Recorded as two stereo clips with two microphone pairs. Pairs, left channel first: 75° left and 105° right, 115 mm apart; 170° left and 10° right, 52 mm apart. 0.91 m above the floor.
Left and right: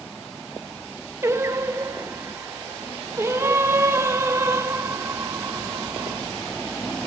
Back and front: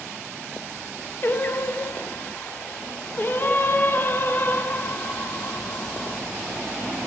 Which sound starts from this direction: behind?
Singing, at 1.2 s.